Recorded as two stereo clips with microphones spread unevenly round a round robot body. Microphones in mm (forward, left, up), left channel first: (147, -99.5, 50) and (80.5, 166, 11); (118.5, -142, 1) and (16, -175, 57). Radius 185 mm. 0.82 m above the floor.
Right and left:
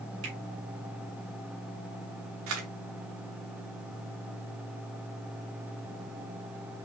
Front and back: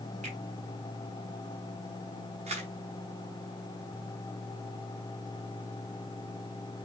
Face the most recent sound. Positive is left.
turn(degrees=160)